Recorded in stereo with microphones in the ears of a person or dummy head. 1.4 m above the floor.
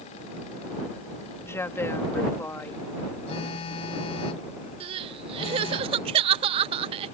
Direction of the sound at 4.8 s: 25° right (ahead or behind).